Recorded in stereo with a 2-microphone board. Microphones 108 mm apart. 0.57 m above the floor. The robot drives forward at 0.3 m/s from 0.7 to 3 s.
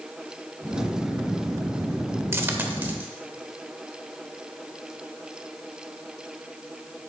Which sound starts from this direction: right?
A dropped coin, at 2.3 s.